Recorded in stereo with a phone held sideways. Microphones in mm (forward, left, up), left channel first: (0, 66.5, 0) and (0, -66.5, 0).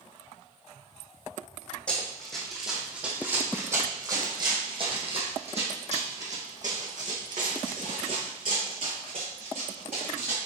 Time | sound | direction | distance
1.9 | running footsteps | 10° left (ahead or behind) | 2.5 m